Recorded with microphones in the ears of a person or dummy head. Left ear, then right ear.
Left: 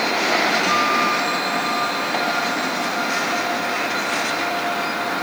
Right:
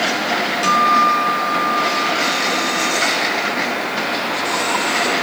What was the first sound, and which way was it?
A guitar, 55° right (ahead or behind).